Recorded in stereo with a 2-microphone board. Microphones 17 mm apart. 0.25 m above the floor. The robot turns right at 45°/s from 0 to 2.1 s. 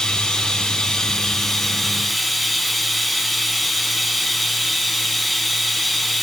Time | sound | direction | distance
0.0 | running water | 75° left | 1.2 m